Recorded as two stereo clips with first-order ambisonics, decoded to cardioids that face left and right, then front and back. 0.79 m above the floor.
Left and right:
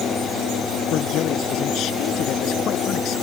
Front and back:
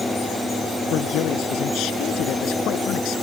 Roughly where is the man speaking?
Ahead left.